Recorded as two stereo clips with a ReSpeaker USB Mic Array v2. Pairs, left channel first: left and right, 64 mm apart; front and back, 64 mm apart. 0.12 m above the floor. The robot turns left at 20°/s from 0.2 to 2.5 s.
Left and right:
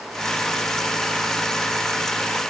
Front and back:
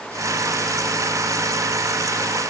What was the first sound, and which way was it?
Only background noise.